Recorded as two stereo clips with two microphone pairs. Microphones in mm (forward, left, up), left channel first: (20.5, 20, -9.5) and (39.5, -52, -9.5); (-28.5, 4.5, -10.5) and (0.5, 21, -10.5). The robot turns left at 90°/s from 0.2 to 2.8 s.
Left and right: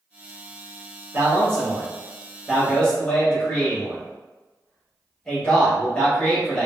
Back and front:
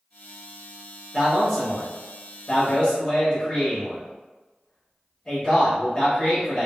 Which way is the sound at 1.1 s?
35° right.